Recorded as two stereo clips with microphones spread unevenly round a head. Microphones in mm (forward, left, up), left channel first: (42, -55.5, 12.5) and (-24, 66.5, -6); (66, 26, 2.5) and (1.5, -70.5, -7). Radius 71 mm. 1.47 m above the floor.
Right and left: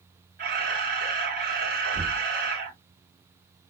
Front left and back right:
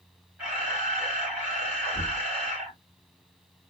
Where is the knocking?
135° left, 3 m.